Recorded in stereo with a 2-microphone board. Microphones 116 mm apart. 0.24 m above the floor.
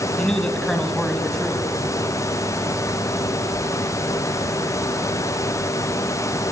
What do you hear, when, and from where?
0.2 s a man speaking: 5° left (ahead or behind), 1.5 m